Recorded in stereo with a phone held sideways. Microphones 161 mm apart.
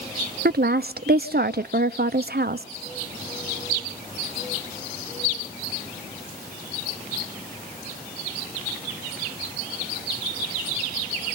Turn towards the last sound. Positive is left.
turn(degrees=-75)  # may be behind; listen again after turning